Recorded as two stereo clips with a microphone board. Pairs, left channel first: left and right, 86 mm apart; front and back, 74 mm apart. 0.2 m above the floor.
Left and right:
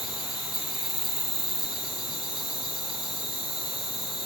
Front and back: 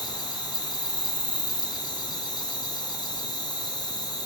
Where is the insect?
Straight ahead, 1.0 m.